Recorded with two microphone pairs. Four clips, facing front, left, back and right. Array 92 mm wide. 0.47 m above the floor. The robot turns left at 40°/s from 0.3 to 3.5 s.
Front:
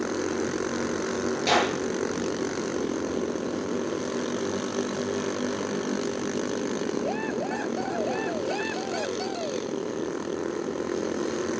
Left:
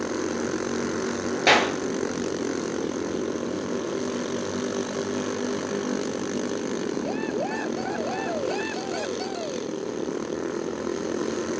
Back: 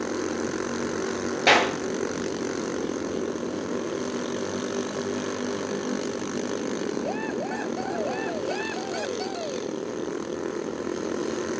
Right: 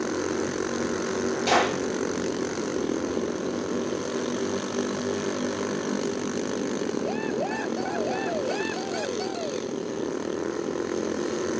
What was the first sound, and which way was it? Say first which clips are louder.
A clap: left 3 dB, back 4 dB; 140° left.